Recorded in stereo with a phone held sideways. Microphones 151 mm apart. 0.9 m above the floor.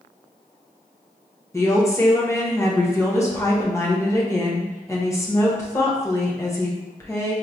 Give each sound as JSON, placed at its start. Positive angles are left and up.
{"t": 1.5, "sound": "a woman speaking", "side_deg": 20, "distance_m": 0.9}